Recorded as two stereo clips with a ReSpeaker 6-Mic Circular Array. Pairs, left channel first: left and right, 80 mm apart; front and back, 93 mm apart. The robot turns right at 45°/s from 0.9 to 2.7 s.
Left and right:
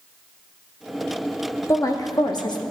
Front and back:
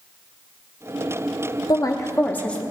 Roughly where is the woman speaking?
Ahead left.